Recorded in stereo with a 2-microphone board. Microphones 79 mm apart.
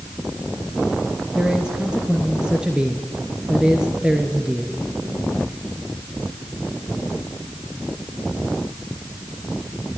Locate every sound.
1.3 s a man speaking: 10° right (ahead or behind), 2.5 m